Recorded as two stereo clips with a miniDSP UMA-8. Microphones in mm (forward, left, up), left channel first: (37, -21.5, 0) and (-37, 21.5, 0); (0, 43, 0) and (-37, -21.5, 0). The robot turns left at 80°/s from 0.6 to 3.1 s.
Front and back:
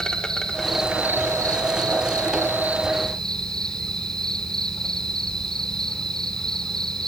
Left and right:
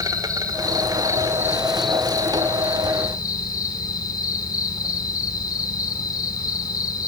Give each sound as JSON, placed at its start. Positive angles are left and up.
{"t": 0.0, "sound": "an insect", "azimuth_deg": -110, "distance_m": 1.6}